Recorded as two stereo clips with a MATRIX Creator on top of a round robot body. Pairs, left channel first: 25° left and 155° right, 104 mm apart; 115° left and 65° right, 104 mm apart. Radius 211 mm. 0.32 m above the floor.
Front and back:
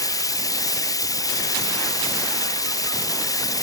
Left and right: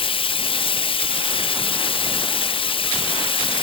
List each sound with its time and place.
0.0 s running water: 80° left, 0.7 m